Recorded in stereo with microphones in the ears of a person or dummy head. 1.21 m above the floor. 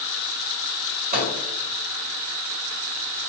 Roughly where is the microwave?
Right.